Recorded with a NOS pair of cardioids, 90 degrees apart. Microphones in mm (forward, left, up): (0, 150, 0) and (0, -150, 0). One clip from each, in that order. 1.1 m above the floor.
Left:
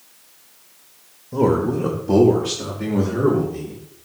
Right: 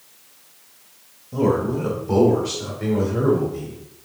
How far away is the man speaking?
About 1.3 m.